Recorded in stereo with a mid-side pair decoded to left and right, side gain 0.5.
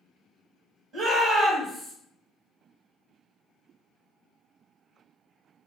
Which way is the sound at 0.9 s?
60° right.